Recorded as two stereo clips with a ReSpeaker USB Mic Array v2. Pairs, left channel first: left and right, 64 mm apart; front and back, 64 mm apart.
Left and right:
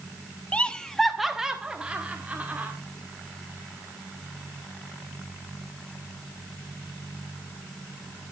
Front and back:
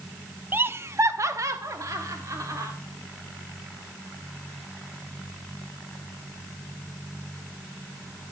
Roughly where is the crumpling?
No crumpling in this recording.